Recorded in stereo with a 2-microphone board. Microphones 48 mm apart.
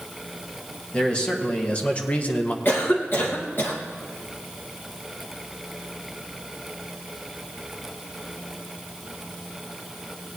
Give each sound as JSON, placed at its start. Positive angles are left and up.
{"t": 0.9, "sound": "a man speaking", "side_deg": 20, "distance_m": 1.9}
{"t": 2.6, "sound": "a cough", "side_deg": 50, "distance_m": 2.5}